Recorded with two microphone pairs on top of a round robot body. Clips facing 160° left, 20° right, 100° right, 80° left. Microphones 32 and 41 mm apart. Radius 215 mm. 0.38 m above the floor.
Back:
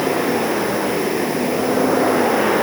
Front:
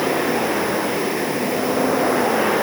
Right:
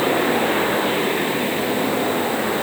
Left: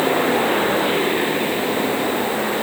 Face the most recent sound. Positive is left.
No sound to turn to.